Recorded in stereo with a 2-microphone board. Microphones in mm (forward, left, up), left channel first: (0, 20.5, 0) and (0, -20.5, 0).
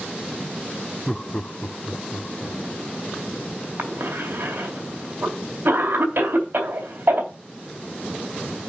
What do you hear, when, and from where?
1.1 s laughter: 10° left (ahead or behind), 0.7 m; by 2.6 s 35° left (ahead or behind), 2 m
3.8 s a cough: 60° right (ahead or behind), 3 m